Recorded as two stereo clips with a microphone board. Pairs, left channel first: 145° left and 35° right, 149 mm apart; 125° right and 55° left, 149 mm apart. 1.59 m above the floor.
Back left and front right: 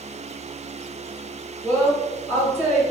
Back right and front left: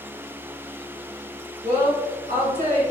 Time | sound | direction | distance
1.6 | a woman speaking | 45° left | 1.9 m